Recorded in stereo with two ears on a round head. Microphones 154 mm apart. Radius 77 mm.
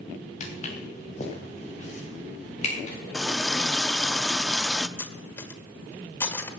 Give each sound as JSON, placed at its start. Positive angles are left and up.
{"t": 0.4, "sound": "footsteps", "side_deg": 40, "distance_m": 3.5}
{"t": 3.1, "sound": "a running tap", "side_deg": 5, "distance_m": 0.6}
{"t": 5.0, "sound": "cutlery clinking", "side_deg": 15, "distance_m": 1.4}